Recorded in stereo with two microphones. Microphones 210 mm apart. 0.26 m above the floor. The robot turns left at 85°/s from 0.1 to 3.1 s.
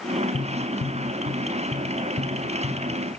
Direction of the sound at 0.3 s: 35° left (ahead or behind).